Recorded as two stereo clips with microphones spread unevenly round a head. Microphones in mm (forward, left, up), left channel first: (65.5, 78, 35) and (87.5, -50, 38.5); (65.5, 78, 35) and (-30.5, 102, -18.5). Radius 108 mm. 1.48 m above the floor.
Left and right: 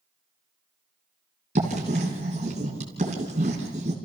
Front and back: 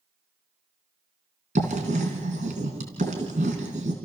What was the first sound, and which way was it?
Writing, 135° right.